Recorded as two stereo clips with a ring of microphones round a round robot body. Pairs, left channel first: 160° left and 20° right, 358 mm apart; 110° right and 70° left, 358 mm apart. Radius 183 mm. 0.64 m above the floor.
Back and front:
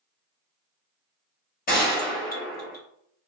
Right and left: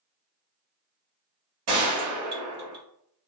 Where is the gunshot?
100° left, 1.5 m.